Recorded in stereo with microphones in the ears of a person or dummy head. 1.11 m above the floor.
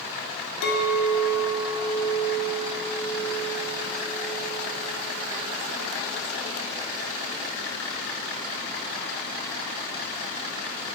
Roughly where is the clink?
Left.